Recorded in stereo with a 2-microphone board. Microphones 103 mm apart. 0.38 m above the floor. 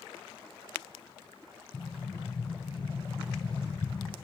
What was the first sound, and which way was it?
An explosion, 35° left (ahead or behind).